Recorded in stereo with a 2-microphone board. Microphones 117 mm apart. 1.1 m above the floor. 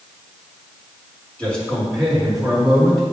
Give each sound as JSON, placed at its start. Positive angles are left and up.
{"t": 1.4, "sound": "a man speaking", "side_deg": 10, "distance_m": 3.0}